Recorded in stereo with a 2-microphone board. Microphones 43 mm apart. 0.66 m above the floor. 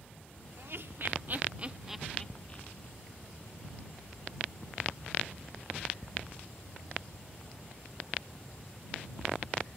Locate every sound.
0.6 s laughter: 65° right (ahead or behind); by 2.9 s 45° left (ahead or behind)